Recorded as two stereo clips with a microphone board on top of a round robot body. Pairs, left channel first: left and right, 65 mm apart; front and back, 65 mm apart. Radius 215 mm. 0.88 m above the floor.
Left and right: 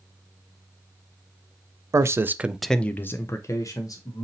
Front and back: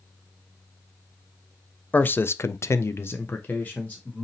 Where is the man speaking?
60° right, 0.6 m; by 4.2 s 65° left, 1.1 m.